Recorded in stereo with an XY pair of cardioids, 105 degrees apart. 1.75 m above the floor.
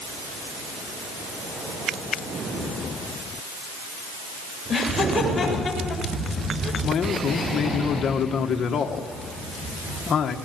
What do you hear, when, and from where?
4.7 s laughter: 20° left, 8 m; by 6.7 s 30° left, 7.5 m
6.8 s a man speaking: 50° left, 1.8 m